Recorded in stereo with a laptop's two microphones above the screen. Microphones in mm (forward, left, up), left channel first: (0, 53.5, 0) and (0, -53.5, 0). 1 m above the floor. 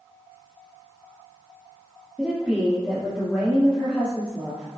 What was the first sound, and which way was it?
A woman speaking, 10° right (ahead or behind).